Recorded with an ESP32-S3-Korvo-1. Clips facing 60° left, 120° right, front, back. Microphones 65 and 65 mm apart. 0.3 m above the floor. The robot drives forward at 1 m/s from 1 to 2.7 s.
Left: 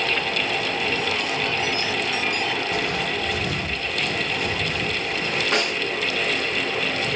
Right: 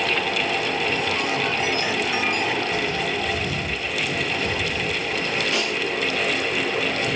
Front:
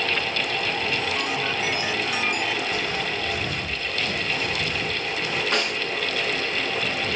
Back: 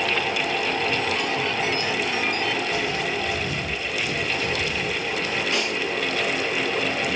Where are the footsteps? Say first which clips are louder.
Right 1 dB, back 2 dB; 45° left, 3.5 m; by 5.4 s 35° left, 5 m.